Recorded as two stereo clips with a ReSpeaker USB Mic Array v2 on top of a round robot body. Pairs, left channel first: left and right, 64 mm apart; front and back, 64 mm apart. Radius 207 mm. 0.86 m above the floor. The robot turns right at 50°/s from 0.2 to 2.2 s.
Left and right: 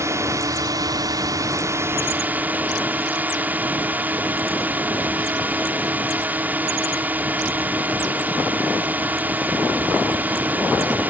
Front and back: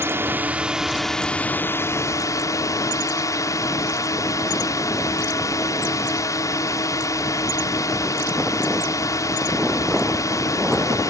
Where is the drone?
130° right; by 11.1 s 30° right.